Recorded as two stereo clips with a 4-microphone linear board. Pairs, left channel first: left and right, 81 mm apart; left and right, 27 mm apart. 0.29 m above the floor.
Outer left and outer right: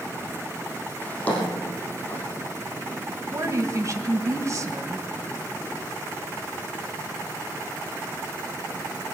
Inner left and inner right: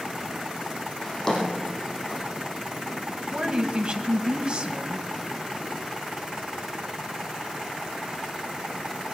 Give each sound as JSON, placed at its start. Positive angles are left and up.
{"t": 1.0, "sound": "a drawer", "side_deg": 15, "distance_m": 4.5}
{"t": 3.3, "sound": "a woman speaking", "side_deg": -40, "distance_m": 1.7}